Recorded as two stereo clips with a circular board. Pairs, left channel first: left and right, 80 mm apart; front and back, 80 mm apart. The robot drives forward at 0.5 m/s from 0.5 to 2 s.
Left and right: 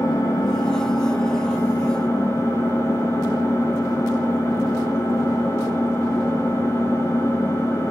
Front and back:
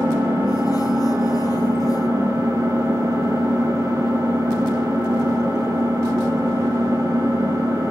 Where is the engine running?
125° left, 4 m; by 7.9 s 130° left, 4.5 m.